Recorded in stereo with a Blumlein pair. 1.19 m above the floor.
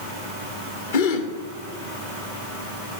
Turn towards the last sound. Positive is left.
turn(degrees=55)